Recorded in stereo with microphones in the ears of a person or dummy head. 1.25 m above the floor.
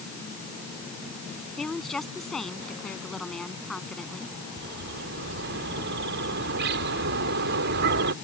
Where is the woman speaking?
5° right (ahead or behind).